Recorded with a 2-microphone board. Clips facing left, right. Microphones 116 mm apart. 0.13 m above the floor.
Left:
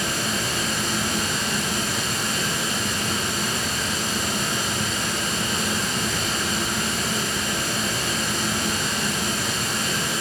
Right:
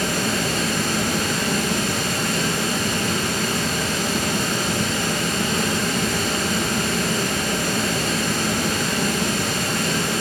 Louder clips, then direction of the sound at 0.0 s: Right 4 dB; 65° right (ahead or behind).